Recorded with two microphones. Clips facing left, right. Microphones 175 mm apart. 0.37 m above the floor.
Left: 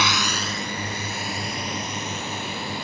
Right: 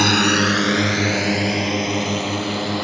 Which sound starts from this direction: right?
A drone, at 0.0 s.